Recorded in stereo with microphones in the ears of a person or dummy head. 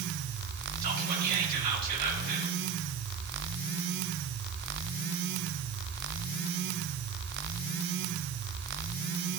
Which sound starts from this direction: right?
Whispering, at 0.8 s.